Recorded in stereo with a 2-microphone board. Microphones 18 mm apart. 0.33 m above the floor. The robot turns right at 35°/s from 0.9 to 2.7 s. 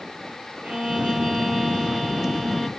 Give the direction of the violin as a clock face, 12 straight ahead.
3 o'clock.